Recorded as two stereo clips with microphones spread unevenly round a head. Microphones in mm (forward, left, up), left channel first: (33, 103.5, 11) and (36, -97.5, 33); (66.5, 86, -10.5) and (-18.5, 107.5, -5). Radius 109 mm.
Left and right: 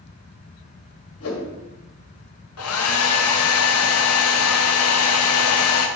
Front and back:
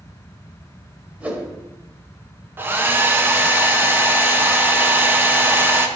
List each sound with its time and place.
1.2 s a whoosh: 90° left, 1.5 m
2.6 s a hair dryer: 105° left, 0.8 m